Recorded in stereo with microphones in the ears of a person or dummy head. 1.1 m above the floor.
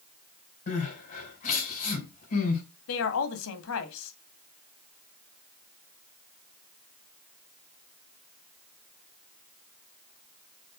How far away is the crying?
About 5 m.